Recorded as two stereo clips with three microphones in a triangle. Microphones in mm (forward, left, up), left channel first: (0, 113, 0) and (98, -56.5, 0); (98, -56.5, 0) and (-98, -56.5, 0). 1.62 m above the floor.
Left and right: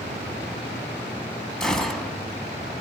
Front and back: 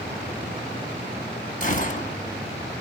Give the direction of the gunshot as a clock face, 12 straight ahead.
11 o'clock.